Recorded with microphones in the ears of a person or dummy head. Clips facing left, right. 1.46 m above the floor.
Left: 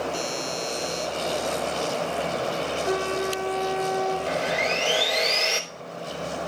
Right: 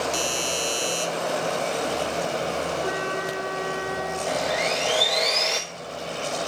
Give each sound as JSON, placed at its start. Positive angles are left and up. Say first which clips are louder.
{"t": 0.1, "sound": "a doorbell", "louder": "right 2 dB", "side_deg": -80, "distance_m": 5.0}
{"t": 2.8, "sound": "a flute", "louder": "left 2 dB", "side_deg": -50, "distance_m": 5.0}
{"t": 4.3, "sound": "sawing", "louder": "right 1 dB", "side_deg": 5, "distance_m": 2.5}